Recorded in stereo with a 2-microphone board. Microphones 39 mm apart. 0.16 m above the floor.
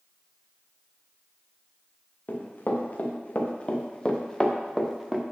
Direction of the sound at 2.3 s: 50° left (ahead or behind).